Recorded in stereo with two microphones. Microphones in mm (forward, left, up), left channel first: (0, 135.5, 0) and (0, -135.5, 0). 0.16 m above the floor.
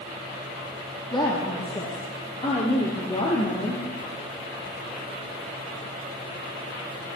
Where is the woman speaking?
20° left (ahead or behind), 5.5 m; by 3.8 s 25° left (ahead or behind), 4.5 m.